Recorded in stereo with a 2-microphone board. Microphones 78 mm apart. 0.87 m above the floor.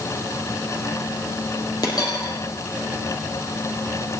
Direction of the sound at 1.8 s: 60° left (ahead or behind).